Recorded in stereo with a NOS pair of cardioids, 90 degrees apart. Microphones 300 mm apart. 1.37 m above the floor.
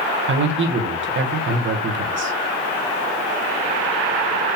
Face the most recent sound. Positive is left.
turn(degrees=-40)